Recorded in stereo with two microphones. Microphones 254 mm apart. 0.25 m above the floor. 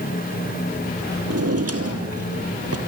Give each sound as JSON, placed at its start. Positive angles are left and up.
{"t": 1.3, "sound": "a drawer", "side_deg": -70, "distance_m": 2.5}